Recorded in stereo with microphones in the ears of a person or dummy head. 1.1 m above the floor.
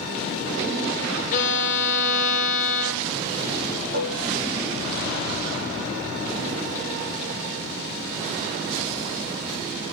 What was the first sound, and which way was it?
A violin, 45° left (ahead or behind).